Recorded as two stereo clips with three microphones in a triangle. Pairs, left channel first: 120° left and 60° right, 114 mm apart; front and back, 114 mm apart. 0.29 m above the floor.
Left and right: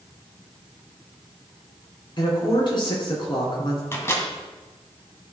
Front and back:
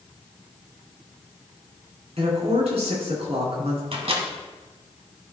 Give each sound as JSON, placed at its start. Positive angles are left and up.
{"t": 2.2, "sound": "a woman speaking", "azimuth_deg": 165, "distance_m": 3.5}
{"t": 3.9, "sound": "a microwave", "azimuth_deg": -175, "distance_m": 1.4}